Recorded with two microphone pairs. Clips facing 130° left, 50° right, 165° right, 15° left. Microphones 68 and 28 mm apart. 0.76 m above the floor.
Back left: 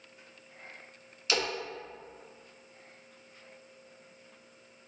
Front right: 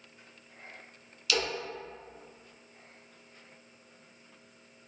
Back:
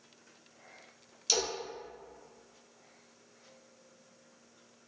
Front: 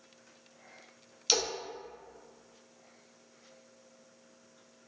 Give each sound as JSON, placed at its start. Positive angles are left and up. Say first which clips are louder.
{"t": 1.3, "sound": "a splash", "louder": "even, front 2 dB", "azimuth_deg": 70, "distance_m": 0.7}